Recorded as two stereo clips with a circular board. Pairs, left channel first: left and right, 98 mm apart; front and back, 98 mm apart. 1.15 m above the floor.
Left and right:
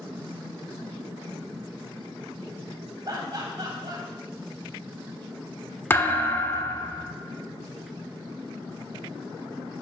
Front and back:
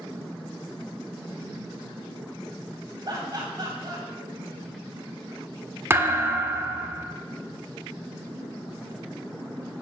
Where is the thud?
140° left, 0.7 m.